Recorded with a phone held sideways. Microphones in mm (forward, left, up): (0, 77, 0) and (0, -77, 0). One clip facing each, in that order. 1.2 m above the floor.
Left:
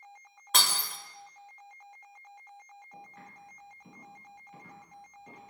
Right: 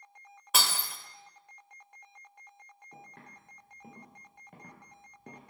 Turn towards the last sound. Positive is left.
turn(degrees=-60)  # may be behind; listen again after turning